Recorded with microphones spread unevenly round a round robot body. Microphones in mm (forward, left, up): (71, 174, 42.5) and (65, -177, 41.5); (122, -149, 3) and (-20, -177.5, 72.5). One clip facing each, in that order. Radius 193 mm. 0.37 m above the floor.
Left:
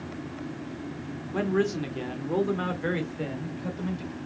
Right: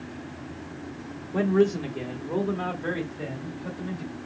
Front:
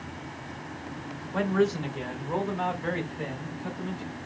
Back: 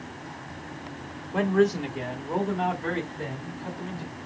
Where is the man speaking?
90° left, 1.2 m; by 4.1 s 70° left, 2 m.